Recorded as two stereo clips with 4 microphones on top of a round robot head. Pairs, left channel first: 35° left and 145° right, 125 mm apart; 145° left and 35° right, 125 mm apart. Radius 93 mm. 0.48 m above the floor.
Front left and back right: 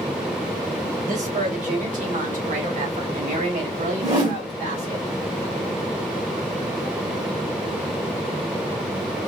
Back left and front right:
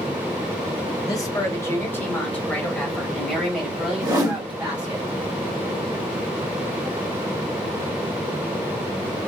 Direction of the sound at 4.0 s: 95° right.